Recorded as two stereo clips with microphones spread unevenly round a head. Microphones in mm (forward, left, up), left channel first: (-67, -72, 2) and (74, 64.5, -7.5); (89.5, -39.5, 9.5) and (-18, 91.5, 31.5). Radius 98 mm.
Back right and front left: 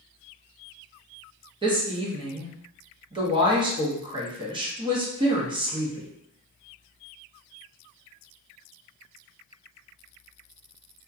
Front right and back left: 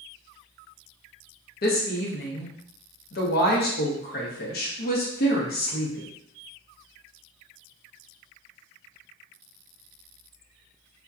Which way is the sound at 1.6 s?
20° right.